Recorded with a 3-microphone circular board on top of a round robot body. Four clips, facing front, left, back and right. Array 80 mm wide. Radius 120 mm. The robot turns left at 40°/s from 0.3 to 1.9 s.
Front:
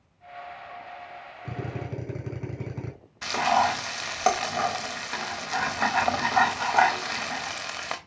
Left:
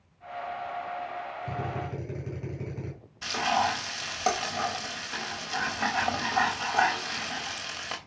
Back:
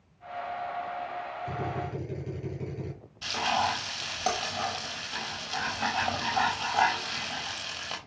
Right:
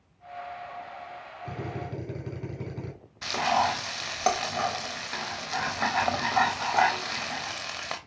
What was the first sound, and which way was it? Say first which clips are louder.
A drill: right 1 dB, front 1 dB; 5° left.